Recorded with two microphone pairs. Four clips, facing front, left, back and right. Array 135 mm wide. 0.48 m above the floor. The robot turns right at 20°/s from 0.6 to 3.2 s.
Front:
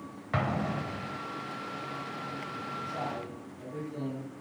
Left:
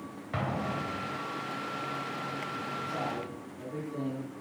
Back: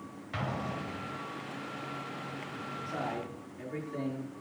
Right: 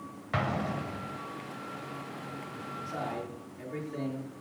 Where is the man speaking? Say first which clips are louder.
Right 2 dB, back 2 dB; 150° right, 6.5 m; by 4.3 s 140° right, 6.5 m.